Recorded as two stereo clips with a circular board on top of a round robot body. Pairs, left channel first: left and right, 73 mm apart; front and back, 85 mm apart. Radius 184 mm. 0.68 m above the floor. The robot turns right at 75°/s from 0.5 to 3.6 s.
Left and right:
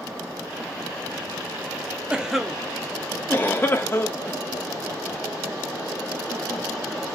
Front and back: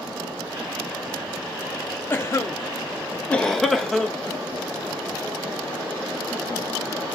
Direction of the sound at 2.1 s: 25° right.